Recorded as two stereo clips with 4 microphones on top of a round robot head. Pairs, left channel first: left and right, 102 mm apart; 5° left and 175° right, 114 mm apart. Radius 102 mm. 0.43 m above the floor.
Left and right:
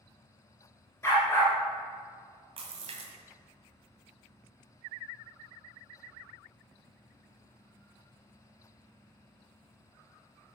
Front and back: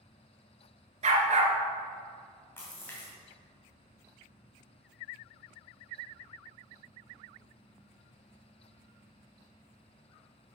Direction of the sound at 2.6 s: 65° right.